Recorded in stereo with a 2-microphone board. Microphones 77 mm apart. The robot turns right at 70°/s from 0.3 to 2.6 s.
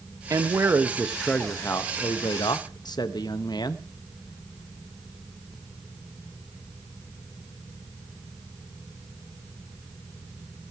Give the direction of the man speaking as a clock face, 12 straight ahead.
2 o'clock.